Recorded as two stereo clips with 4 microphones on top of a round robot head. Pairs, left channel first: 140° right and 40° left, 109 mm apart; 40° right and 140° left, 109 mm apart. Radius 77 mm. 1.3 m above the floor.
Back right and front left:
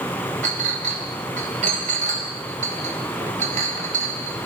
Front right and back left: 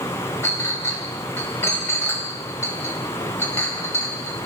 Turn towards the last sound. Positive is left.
turn(degrees=25)